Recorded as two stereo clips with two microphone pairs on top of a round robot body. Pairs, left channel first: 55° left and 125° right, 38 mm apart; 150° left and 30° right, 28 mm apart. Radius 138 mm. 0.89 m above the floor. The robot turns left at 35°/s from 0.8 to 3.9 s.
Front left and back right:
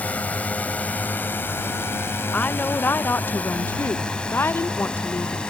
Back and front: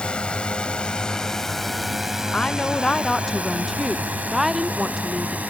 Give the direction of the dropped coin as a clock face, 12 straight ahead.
I don't hear a dropped coin.